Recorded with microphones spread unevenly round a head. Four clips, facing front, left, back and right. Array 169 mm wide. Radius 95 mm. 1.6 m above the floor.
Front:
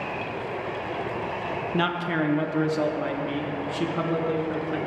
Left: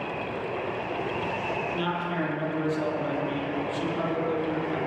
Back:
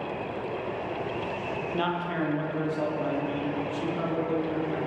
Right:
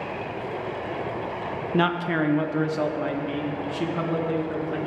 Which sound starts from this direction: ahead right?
A man speaking, at 1.7 s.